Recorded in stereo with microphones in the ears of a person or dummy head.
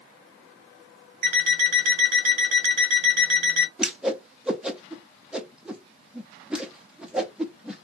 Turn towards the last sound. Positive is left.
turn(degrees=-5)  # may be behind; listen again after turning